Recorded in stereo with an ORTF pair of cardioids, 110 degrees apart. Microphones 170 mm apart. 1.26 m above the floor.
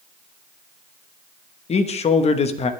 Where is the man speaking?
40° left, 1.4 m.